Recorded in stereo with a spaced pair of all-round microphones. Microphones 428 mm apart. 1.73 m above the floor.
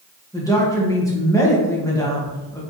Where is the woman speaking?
10° left (ahead or behind), 2.5 m.